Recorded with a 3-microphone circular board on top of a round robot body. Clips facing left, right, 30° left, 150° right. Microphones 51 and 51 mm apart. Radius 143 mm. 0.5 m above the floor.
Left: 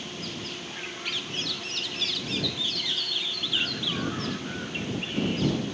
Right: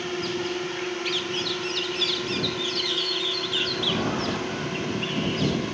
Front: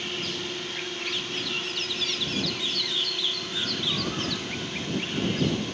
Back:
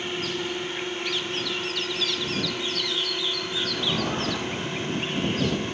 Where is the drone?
85° right; by 5.8 s 90° right.